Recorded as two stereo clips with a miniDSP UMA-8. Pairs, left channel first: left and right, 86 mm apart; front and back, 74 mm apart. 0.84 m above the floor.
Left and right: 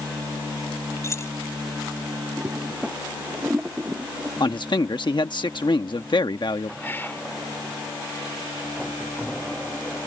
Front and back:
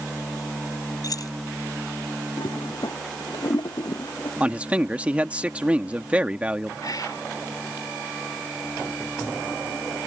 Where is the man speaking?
110° left.